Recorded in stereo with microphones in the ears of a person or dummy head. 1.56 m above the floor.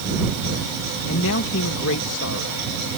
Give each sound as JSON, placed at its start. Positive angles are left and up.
{"t": 1.1, "sound": "a man speaking", "side_deg": 70}